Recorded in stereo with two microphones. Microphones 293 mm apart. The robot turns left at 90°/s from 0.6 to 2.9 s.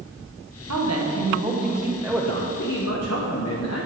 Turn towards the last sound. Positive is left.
turn(degrees=115)